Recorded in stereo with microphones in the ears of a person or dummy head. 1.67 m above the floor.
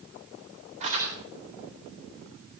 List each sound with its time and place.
0.8 s crumpling: 35° right (ahead or behind), 7 m